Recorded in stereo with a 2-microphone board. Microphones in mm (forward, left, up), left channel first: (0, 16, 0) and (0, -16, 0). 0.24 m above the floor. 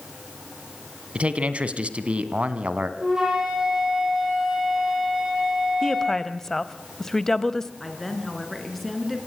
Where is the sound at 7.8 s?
Centre (ahead or behind), 4 m.